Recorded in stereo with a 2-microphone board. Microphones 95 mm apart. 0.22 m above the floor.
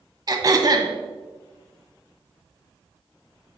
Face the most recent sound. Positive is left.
turn(degrees=-40)  # may be behind; listen again after turning